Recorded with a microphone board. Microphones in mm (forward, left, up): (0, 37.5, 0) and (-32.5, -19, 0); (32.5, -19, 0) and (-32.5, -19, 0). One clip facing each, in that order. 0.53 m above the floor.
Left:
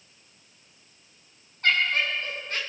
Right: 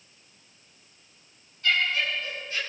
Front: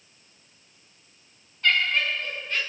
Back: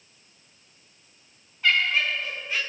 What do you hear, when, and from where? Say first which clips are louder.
1.6 s laughter: left 2 dB, even; 100° left, 5 m